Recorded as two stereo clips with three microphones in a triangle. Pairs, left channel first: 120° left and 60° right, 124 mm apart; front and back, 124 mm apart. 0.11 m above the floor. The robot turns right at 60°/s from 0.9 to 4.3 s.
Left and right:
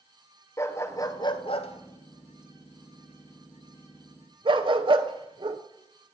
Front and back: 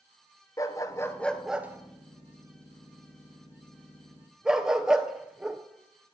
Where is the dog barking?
60° left, 0.7 m; by 5.6 s 95° right, 0.7 m.